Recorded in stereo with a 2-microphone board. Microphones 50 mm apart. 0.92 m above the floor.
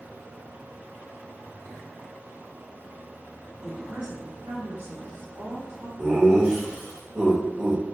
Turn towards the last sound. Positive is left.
turn(degrees=-15)  # may be behind; listen again after turning